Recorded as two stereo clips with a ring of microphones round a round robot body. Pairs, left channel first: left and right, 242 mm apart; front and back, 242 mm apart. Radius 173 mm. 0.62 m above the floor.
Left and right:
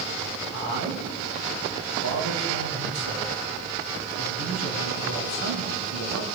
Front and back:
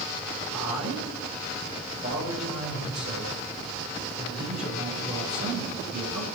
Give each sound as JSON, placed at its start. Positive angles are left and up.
{"t": 0.5, "sound": "a man speaking", "azimuth_deg": -120, "distance_m": 4.5}